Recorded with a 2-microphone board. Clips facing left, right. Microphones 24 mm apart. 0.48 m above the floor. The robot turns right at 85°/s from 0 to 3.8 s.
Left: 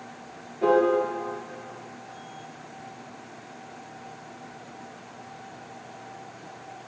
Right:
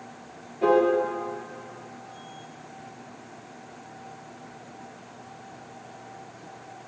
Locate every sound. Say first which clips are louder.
0.6 s a piano: even; 10° right (ahead or behind), 1.9 m; by 0.9 s 35° right (ahead or behind), 1.9 m